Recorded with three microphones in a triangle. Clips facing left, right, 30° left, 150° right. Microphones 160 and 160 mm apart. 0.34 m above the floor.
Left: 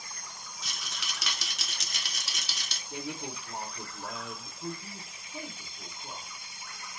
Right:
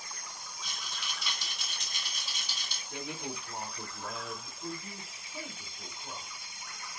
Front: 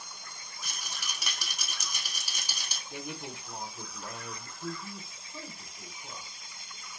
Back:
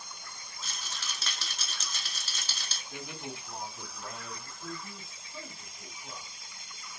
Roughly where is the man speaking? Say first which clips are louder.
Left 2 dB, front 2 dB; left.